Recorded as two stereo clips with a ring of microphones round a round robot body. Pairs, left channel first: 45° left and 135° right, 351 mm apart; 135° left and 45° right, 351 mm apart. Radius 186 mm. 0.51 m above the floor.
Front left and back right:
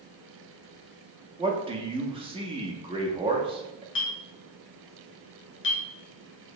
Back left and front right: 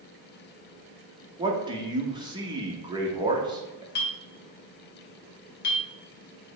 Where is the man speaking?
95° right, 0.7 m.